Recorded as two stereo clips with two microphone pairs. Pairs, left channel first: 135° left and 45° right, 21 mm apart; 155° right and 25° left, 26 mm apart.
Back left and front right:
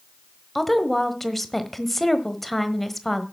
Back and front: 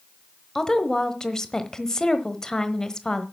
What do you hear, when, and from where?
0.6 s a woman speaking: 160° right, 1.2 m